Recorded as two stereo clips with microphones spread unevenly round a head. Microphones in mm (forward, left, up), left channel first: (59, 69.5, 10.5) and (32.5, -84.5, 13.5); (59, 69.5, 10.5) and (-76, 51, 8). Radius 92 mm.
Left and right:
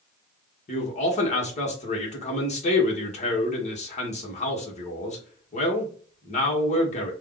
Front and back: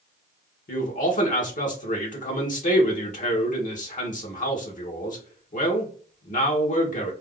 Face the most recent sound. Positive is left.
turn(degrees=35)